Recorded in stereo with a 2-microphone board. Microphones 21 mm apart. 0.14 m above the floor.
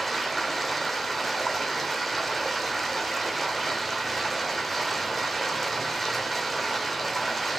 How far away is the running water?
About 1.3 m.